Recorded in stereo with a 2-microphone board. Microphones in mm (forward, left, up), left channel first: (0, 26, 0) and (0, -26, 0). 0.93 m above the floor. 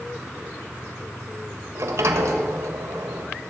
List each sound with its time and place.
1.8 s a sliding door: 65° right (ahead or behind), 1.2 m